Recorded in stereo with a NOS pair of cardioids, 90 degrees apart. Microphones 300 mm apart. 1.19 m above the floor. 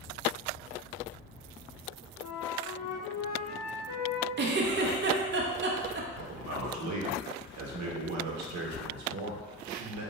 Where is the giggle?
40° right, 0.6 m.